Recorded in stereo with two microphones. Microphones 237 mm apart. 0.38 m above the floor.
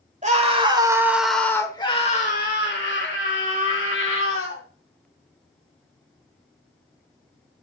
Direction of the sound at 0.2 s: 30° right (ahead or behind).